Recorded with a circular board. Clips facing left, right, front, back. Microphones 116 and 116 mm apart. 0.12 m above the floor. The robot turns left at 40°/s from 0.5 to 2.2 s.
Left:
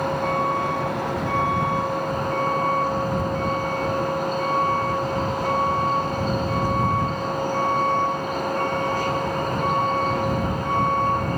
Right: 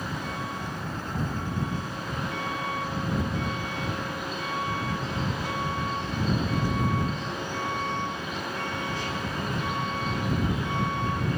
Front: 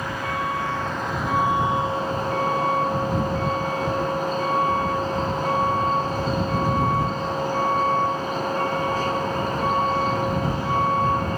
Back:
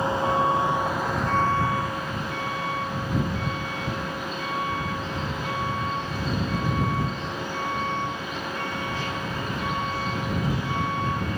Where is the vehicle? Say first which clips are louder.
Left 11 dB, back 4 dB; 115° left; by 11.4 s 50° left.